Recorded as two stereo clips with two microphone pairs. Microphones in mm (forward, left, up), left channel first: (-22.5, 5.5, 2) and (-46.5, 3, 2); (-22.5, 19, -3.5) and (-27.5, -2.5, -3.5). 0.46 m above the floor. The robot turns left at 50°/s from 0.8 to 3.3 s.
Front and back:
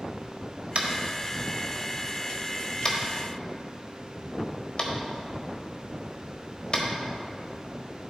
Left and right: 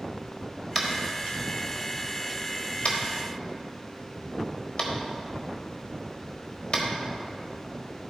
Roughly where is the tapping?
Behind.